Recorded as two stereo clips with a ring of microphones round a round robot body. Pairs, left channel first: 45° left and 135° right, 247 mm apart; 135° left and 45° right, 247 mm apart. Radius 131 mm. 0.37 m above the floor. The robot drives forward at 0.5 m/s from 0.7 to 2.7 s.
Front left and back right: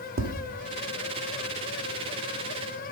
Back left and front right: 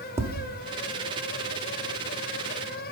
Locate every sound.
0.2 s tapping: 120° right, 1.2 m